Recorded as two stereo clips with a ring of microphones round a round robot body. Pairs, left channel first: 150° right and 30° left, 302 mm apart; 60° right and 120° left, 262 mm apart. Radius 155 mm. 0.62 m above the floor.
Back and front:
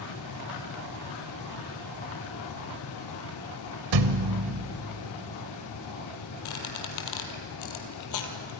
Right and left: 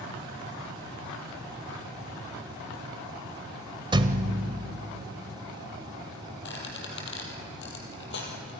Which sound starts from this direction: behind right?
A squeak, at 6.5 s.